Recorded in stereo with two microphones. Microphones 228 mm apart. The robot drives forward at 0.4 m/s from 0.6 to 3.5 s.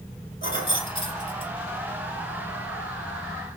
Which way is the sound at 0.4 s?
20° left (ahead or behind).